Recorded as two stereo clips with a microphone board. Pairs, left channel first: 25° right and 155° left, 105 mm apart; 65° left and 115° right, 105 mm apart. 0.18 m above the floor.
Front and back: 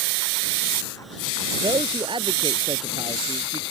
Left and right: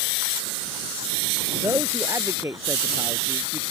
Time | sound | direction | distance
1.6 | a man speaking | 175° right | ?